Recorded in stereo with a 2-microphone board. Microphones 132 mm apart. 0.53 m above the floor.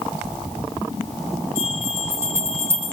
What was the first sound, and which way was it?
A bell, 20° right (ahead or behind).